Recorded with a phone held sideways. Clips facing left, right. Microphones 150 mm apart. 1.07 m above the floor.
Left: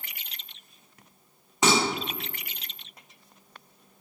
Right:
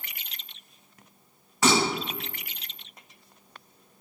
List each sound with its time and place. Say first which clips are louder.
1.6 s dishes clattering: even; 20° left (ahead or behind), 1.2 m